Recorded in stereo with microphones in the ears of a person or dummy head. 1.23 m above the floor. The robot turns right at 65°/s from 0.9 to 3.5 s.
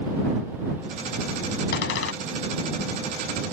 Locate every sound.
1.7 s a door slam: 65° left (ahead or behind); by 2.1 s 90° left